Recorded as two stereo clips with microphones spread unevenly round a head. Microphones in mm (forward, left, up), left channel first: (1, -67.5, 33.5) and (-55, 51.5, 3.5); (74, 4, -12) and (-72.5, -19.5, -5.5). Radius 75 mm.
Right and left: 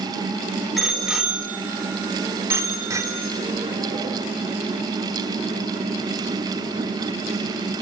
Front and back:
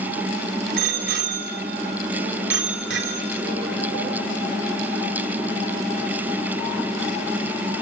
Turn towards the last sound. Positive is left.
turn(degrees=175)